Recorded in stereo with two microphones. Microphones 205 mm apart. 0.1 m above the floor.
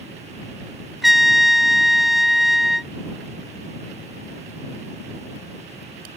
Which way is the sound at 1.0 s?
Centre (ahead or behind).